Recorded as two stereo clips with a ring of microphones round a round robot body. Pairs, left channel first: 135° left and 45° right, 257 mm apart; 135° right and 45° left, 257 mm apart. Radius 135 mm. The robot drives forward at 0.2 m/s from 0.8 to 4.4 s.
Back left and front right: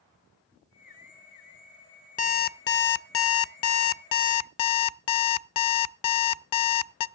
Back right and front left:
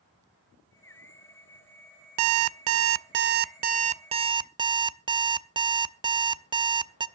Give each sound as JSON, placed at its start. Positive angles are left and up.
{"t": 2.2, "sound": "an alarm clock", "azimuth_deg": 75, "distance_m": 0.6}